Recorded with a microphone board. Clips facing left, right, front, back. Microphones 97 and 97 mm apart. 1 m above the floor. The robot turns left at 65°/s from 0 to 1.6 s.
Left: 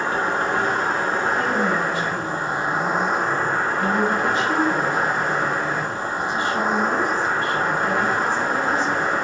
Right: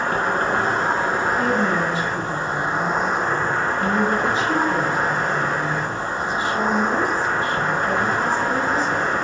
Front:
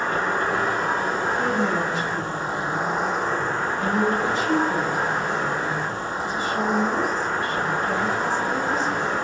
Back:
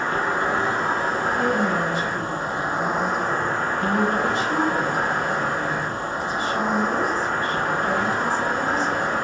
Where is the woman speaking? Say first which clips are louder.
Right 1 dB, back 2 dB; 100° left, 1.6 m; by 9.1 s 85° left, 1.6 m.